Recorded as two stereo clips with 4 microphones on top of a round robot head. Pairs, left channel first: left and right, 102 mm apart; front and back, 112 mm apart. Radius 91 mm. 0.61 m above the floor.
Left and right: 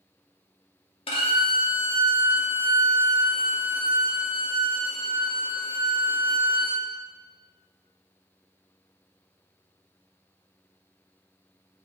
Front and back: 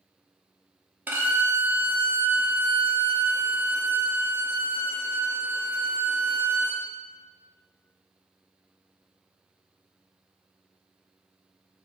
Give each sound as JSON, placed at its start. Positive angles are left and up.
{"t": 1.1, "sound": "a violin", "azimuth_deg": 105, "distance_m": 0.6}